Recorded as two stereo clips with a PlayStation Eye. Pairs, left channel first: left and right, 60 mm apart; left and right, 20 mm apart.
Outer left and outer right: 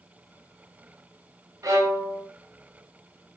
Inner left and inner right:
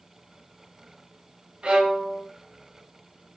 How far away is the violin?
About 0.7 m.